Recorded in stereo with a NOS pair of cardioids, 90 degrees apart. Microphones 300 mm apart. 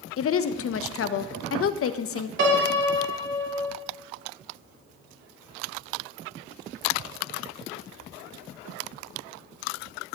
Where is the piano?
40° right, 3 m.